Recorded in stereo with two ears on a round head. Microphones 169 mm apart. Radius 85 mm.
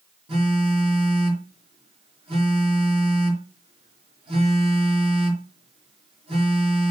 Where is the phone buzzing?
30° right (ahead or behind), 3.5 m.